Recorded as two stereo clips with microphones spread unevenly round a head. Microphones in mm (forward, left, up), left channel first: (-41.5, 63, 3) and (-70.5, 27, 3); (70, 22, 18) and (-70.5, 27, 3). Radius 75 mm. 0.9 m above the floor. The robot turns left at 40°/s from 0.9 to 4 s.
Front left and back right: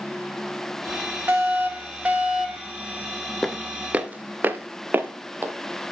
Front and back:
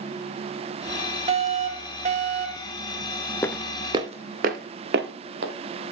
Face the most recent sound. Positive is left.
turn(degrees=-170)